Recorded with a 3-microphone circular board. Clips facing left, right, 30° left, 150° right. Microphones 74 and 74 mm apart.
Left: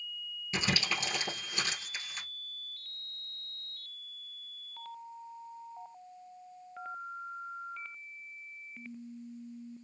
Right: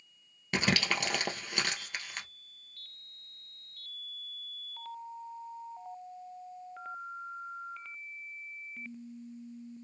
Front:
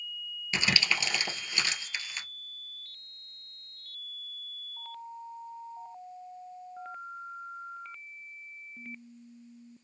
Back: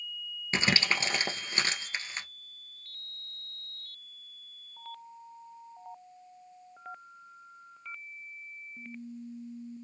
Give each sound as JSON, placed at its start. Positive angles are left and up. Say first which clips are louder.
{"t": 0.5, "sound": "crumpling", "louder": "right 3 dB, back 1 dB", "azimuth_deg": -100, "distance_m": 1.2}